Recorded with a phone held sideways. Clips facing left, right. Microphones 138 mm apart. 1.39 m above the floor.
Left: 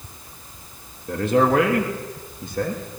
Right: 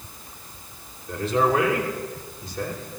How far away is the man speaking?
About 2.5 m.